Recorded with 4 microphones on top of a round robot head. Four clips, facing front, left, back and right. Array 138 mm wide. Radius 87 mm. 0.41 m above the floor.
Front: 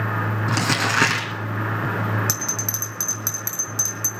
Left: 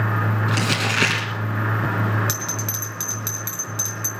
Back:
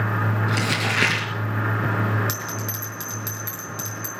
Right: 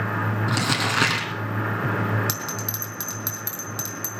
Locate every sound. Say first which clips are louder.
0.5 s crumpling: left 1 dB, front 2 dB; 35° right, 3 m
2.3 s a bell: left 1 dB, even; 35° right, 3.5 m